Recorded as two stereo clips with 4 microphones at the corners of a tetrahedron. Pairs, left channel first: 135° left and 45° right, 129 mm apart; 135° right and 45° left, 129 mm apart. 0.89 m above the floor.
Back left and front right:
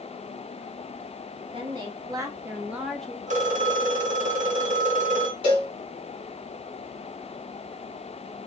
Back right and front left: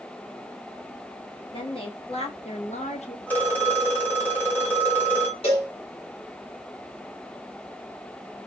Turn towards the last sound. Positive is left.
turn(degrees=-95)